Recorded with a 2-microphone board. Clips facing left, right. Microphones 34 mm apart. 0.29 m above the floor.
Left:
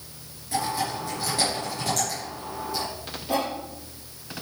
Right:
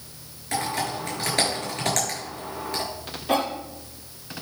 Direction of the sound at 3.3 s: 70° right (ahead or behind).